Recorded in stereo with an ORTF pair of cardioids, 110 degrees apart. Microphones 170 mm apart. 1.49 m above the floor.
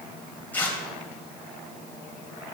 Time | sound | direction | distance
0.5 | tearing paper | 10° left | 3.5 m